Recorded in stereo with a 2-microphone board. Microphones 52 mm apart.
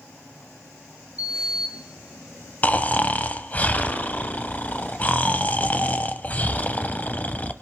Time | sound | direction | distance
1.2 | a sliding door | 85° left | 1.2 m
2.6 | snoring | 30° left (ahead or behind) | 0.8 m